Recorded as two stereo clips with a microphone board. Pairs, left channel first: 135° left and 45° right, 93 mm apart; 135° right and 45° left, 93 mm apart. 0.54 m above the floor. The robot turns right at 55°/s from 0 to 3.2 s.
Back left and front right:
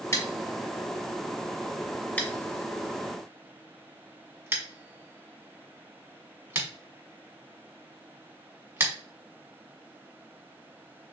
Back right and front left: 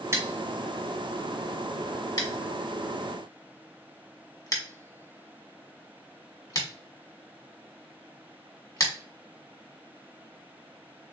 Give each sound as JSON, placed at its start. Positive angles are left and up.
{"t": 0.1, "sound": "scissors", "azimuth_deg": 90, "distance_m": 1.5}